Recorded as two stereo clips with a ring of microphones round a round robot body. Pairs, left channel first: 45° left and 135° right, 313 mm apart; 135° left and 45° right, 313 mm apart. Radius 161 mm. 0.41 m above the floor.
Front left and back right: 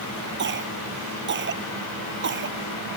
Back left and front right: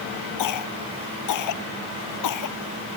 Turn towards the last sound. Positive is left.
turn(degrees=170)